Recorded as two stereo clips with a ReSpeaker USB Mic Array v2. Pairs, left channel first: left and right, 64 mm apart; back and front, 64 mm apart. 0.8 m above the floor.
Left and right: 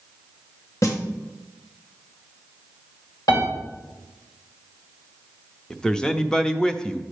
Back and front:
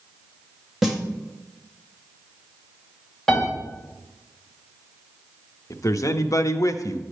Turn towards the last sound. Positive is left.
turn(degrees=165)